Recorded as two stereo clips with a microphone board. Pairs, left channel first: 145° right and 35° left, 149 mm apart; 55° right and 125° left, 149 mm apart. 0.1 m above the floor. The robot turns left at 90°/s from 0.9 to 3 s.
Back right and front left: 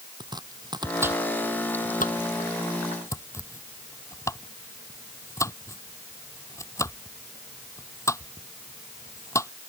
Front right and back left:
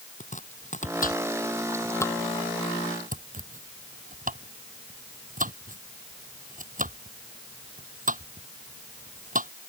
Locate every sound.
0.2 s chopping: 25° right; by 9.5 s 145° left